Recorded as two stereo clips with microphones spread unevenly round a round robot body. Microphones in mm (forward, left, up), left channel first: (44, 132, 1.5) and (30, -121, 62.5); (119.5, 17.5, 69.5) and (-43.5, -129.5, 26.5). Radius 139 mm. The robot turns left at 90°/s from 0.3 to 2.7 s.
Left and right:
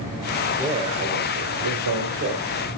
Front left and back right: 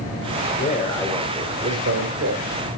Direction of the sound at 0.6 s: Straight ahead.